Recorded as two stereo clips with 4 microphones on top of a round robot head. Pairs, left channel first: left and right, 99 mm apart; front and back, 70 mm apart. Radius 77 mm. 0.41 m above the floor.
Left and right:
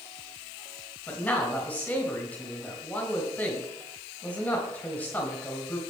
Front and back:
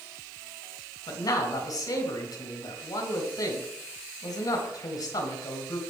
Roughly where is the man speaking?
Ahead.